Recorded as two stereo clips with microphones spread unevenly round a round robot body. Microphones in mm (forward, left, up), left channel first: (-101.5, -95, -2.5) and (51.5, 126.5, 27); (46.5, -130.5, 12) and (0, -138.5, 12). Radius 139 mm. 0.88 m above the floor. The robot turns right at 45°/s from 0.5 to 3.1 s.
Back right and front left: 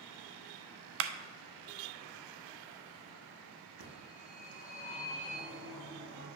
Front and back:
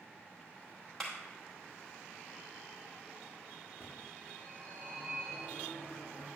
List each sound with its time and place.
1.0 s a clap: 95° left, 0.6 m; by 1.1 s 100° left, 0.6 m
3.8 s a phone ringing: 80° left, 4 m